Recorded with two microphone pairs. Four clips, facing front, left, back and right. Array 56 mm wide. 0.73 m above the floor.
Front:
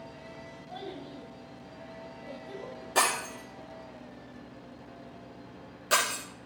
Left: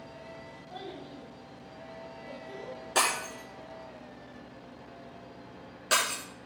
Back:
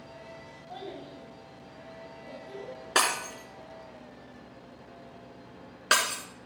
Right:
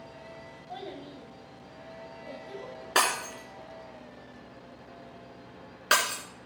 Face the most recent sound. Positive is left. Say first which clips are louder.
# right 2 dB, even
turn(degrees=-135)